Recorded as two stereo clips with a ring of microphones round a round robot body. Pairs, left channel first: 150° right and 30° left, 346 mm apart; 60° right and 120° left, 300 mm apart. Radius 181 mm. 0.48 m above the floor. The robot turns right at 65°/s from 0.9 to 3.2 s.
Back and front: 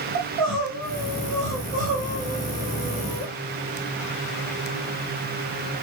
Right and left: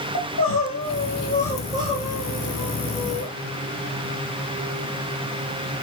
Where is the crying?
15° right, 4.5 m; by 3.3 s 135° left, 4.5 m.